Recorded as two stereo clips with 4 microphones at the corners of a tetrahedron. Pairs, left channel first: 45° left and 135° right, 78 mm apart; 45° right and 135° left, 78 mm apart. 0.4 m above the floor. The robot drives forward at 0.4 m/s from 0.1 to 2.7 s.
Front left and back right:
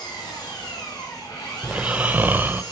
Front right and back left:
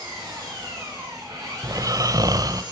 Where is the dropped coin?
I don't hear a dropped coin.